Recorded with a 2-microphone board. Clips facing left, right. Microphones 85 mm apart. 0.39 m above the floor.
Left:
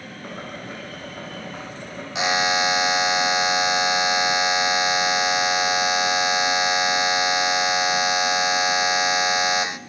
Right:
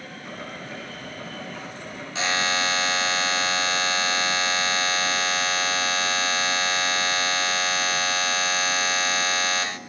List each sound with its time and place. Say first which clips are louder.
0.2 s boiling: left 3 dB; 55° left (ahead or behind), 10 m
2.1 s a buzzer: left 4 dB; 15° left (ahead or behind), 0.8 m